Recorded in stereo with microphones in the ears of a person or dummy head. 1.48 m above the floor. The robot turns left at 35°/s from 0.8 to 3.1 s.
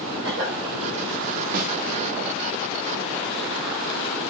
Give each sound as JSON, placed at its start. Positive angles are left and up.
{"t": 0.2, "sound": "a cough", "side_deg": -65, "distance_m": 3.5}
{"t": 1.5, "sound": "a snare drum", "side_deg": -45, "distance_m": 1.2}